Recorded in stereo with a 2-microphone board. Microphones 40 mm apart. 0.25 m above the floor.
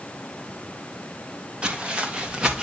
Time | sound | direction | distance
1.6 | footsteps | 25° right (ahead or behind) | 3 m